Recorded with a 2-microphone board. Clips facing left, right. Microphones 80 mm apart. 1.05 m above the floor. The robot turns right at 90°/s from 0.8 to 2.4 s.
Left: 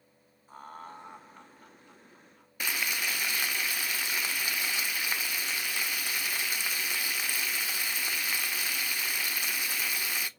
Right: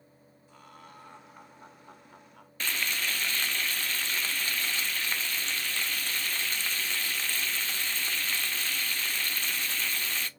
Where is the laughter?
135° left, 1.1 m; by 2.5 s 80° right, 1.1 m.